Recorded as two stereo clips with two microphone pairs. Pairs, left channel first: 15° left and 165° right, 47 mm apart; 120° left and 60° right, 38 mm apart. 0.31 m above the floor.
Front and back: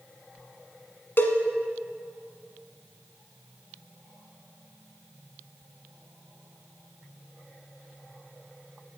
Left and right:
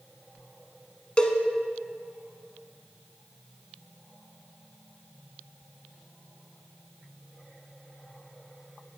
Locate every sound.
1.2 s a cowbell: 60° left, 1.3 m